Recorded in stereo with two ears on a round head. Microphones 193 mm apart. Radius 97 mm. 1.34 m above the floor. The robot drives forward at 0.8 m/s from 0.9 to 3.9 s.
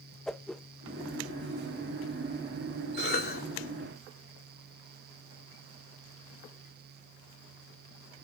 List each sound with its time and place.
0.3 s a whoosh: 5° left (ahead or behind), 0.6 m
3.0 s a cough: 50° left (ahead or behind), 2.5 m; by 3.4 s 45° left (ahead or behind), 3 m